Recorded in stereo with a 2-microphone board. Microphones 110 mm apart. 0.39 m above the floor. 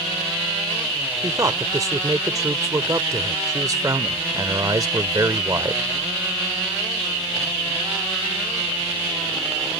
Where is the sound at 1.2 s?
30° right (ahead or behind).